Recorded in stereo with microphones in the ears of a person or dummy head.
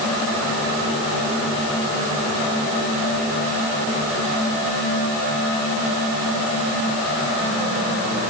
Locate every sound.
Only background noise.